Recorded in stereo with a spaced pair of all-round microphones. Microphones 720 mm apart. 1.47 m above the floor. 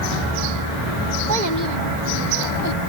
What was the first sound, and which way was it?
A child speaking, 80° right.